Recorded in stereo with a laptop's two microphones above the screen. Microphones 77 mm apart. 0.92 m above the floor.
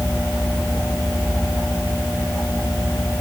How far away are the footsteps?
No footsteps in this recording.